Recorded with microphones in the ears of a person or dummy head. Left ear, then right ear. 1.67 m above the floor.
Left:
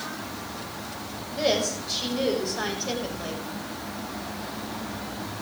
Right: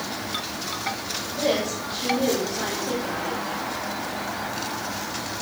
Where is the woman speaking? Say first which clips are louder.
Even; 55° left (ahead or behind), 7 m.